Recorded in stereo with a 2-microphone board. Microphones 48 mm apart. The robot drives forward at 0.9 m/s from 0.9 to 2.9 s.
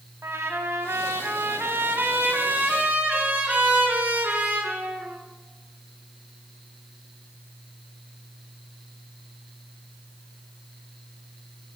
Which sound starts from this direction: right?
A trumpet, at 0.2 s.